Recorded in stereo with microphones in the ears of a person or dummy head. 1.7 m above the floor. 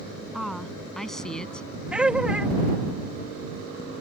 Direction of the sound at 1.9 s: 5° right (ahead or behind).